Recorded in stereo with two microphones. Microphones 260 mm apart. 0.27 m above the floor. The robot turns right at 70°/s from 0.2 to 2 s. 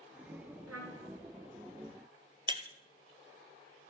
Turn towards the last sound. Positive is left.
turn(degrees=-20)  # may be behind; listen again after turning